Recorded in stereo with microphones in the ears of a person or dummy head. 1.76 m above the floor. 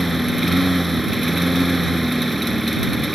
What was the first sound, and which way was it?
A lawn mower, centre (ahead or behind).